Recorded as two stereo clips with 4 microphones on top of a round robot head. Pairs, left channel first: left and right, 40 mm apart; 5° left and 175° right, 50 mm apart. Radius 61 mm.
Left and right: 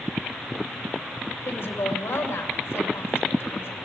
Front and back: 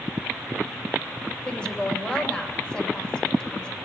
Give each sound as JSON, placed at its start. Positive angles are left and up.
{"t": 1.4, "sound": "a woman speaking", "azimuth_deg": 75, "distance_m": 2.5}